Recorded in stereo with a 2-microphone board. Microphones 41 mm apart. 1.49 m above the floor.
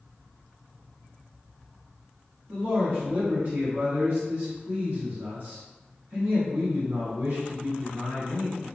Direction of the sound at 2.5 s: 80° right.